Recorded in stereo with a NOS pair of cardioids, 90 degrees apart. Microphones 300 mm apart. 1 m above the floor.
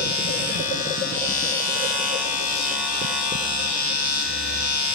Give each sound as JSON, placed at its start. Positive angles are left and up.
{"t": 0.0, "sound": "a machine running", "azimuth_deg": 70, "distance_m": 2.0}